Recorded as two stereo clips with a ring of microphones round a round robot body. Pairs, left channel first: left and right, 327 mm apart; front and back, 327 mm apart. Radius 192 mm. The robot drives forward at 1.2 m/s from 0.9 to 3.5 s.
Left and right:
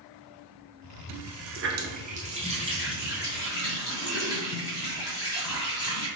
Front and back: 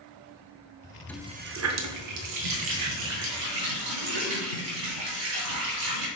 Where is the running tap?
85° right, 0.7 m; by 6.1 s 170° right, 3 m.